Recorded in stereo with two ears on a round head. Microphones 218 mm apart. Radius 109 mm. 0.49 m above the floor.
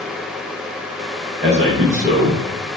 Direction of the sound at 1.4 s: 25° right (ahead or behind).